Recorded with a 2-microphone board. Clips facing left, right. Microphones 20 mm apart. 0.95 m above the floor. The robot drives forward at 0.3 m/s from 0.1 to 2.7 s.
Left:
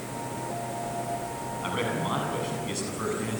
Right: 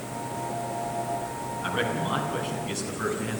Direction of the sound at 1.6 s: 5° left (ahead or behind).